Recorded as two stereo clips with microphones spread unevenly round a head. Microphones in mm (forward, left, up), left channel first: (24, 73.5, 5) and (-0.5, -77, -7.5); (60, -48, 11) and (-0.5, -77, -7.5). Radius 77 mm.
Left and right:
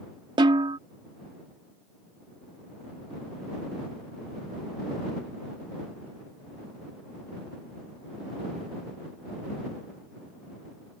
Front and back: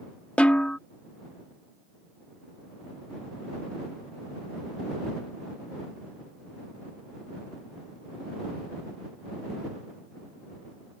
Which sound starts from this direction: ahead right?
A snare drum, at 0.4 s.